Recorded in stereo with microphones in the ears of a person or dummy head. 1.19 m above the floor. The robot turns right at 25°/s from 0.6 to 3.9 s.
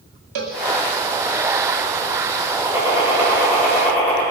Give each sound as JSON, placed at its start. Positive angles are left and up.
{"t": 0.3, "sound": "a cowbell", "side_deg": -45, "distance_m": 1.6}
{"t": 2.6, "sound": "a gunshot", "azimuth_deg": -20, "distance_m": 6.5}